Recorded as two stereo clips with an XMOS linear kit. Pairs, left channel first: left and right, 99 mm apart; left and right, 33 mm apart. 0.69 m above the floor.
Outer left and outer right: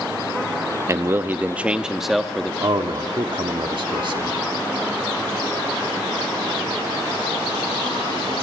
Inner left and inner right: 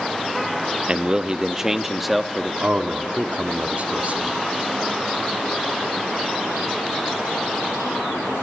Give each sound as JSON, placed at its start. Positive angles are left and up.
{"t": 0.9, "sound": "a man speaking", "side_deg": -30, "distance_m": 0.7}
{"t": 2.6, "sound": "a man speaking", "side_deg": -55, "distance_m": 1.2}